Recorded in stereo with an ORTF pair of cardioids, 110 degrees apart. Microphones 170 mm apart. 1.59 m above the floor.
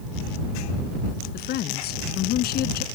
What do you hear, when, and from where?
1.3 s a woman speaking: 70° left